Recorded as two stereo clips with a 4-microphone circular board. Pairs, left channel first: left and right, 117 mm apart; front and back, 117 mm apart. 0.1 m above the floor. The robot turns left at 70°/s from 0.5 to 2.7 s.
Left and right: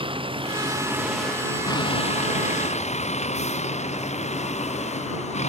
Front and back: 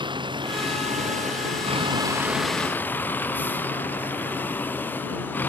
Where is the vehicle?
130° right; by 5.5 s 75° left.